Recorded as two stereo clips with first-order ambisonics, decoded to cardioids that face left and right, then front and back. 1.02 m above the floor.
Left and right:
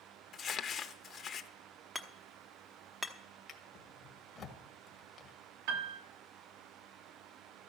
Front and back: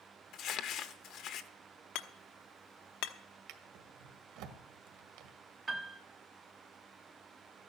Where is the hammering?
5° right, 1.0 m.